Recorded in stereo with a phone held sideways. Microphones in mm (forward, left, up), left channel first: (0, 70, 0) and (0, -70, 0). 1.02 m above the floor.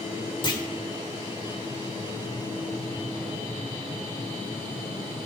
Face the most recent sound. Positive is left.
turn(degrees=35)  # may be behind; listen again after turning